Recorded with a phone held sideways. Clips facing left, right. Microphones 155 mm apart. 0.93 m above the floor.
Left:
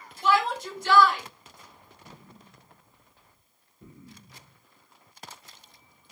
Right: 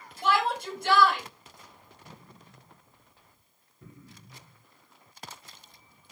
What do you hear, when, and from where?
0.2 s a shout: 60° right (ahead or behind), 1.5 m
2.0 s an explosion: 15° left (ahead or behind), 1.5 m